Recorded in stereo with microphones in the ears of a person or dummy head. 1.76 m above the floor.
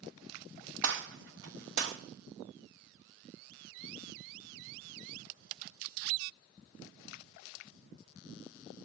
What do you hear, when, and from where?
0.8 s a gunshot: 70° right (ahead or behind), 1.2 m